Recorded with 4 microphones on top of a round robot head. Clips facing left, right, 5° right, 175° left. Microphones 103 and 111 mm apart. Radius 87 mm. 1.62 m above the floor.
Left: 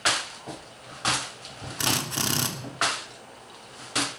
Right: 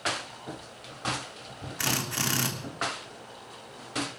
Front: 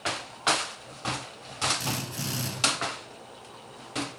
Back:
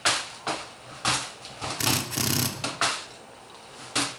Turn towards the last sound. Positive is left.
turn(degrees=160)